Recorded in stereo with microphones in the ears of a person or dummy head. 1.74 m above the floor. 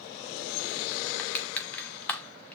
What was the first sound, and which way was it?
Crushing, 5° left (ahead or behind).